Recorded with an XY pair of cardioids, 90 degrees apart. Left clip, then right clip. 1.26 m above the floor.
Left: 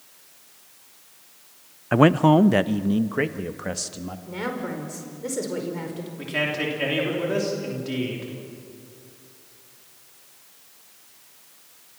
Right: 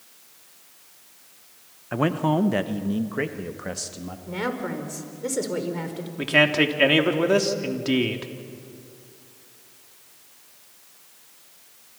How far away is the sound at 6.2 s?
About 3 m.